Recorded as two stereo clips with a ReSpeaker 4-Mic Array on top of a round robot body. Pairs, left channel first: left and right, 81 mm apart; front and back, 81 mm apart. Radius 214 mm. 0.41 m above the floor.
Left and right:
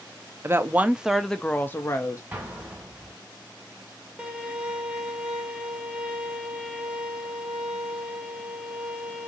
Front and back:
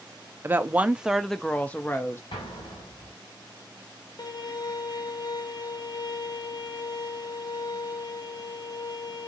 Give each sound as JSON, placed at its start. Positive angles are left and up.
{"t": 0.4, "sound": "a woman speaking", "azimuth_deg": -130, "distance_m": 0.9}
{"t": 2.3, "sound": "an explosion", "azimuth_deg": -20, "distance_m": 2.0}
{"t": 4.2, "sound": "a violin", "azimuth_deg": -15, "distance_m": 1.2}